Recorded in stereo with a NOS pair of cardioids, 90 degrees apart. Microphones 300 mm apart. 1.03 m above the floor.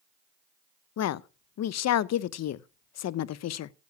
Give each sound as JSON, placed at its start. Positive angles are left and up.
{"t": 1.0, "sound": "a woman speaking", "azimuth_deg": 55, "distance_m": 0.6}